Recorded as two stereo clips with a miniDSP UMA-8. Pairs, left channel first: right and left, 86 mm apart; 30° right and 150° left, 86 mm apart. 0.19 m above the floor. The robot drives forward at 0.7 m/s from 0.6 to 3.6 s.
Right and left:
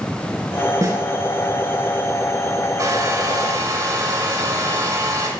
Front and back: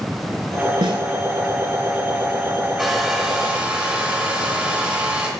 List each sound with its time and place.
0.8 s a snare drum: 140° left, 0.9 m; by 1.0 s 145° left, 1.0 m
2.8 s a hair dryer: 65° left, 2 m; by 5.3 s 85° left, 2 m